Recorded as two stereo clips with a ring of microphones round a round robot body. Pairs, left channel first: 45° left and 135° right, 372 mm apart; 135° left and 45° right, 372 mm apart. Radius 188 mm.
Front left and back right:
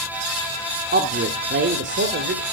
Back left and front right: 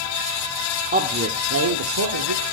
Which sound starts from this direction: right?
A man speaking, at 0.9 s.